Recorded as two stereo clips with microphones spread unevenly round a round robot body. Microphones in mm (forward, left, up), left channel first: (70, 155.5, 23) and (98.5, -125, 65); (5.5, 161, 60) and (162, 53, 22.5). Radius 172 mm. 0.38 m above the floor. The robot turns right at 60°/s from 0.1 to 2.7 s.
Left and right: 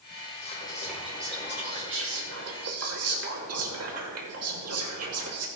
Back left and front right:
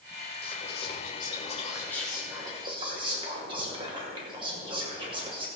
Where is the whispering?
145° left, 2 m; by 5.5 s 80° right, 2 m.